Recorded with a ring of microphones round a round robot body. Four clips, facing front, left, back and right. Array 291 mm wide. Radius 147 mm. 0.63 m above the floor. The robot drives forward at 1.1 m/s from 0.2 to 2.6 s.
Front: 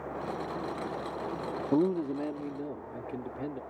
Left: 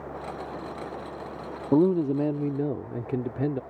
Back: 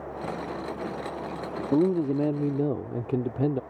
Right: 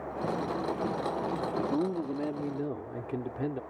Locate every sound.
1.7 s a man speaking: 110° left; by 3.6 s 150° left